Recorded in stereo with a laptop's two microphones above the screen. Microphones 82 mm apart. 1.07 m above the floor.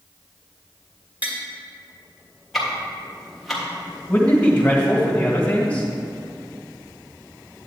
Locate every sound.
1.2 s tapping: 20° right (ahead or behind), 1.9 m
2.5 s ticking: centre (ahead or behind), 1.6 m
4.1 s a man speaking: 20° left (ahead or behind), 1.5 m